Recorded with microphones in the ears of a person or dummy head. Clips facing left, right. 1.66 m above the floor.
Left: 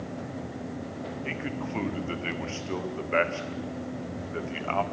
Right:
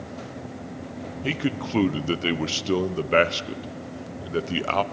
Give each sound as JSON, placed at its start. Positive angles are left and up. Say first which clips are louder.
{"t": 1.2, "sound": "a man speaking", "louder": "right 10 dB", "side_deg": -55, "distance_m": 1.1}